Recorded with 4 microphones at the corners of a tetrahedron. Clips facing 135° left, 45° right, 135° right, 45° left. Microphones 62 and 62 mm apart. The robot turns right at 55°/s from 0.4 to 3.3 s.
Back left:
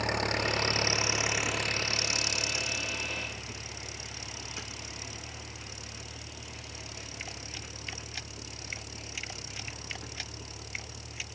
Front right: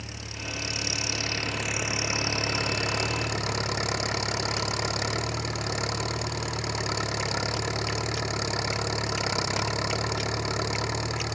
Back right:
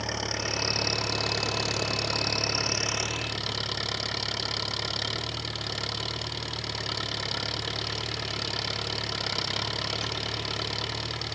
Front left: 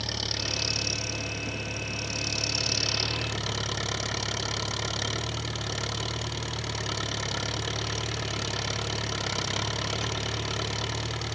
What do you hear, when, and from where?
0.0 s an engine running: 160° left; by 11.4 s 40° right